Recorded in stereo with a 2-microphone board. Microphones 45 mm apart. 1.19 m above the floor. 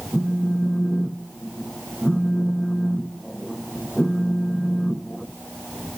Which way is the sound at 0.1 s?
Centre (ahead or behind).